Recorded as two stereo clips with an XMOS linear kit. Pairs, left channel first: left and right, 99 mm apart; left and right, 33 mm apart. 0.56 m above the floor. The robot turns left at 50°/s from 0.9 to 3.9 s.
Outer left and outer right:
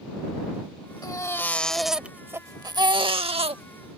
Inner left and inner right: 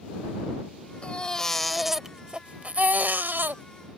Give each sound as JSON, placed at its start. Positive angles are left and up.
{"t": 1.0, "sound": "a baby crying", "azimuth_deg": 40}